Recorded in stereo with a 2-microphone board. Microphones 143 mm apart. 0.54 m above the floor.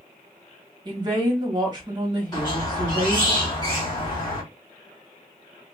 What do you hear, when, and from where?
0.8 s a woman speaking: 30° right (ahead or behind), 0.9 m
2.3 s a squeak: 30° left (ahead or behind), 1.3 m